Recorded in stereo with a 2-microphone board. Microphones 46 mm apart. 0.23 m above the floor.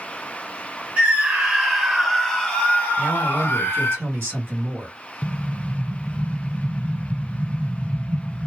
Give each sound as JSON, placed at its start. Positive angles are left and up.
{"t": 1.0, "sound": "a scream", "side_deg": -25, "distance_m": 1.3}
{"t": 3.0, "sound": "a man speaking", "side_deg": -55, "distance_m": 2.0}
{"t": 5.2, "sound": "an explosion", "side_deg": -15, "distance_m": 0.6}